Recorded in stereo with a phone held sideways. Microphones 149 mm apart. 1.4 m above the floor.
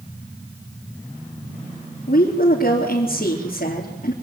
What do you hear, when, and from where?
2.1 s a woman speaking: 75° left (ahead or behind), 4 m